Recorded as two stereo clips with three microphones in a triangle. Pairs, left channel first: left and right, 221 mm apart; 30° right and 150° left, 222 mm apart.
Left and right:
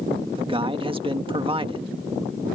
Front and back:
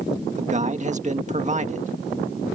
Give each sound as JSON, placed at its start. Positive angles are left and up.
{"t": 0.4, "sound": "a man speaking", "azimuth_deg": -155}